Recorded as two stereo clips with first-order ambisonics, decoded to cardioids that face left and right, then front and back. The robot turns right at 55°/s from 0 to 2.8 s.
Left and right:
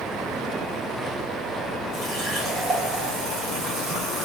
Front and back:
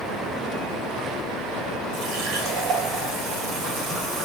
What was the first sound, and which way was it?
A running tap, 165° left.